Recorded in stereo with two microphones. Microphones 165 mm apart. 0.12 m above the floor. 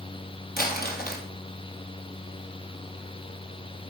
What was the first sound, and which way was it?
Crumpling, 65° left (ahead or behind).